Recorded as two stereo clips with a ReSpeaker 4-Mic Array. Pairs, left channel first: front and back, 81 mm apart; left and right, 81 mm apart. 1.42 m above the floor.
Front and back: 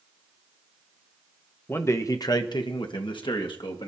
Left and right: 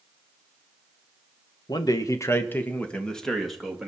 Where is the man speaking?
60° left, 1.5 m; by 3.9 s 5° right, 3 m.